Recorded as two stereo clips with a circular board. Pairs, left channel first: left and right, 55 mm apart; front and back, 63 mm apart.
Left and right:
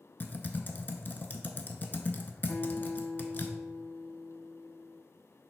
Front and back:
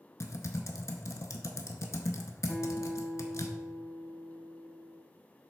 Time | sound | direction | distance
0.2 | typing on a keyboard | 35° left | 0.5 m
2.5 | a guitar | 80° left | 0.8 m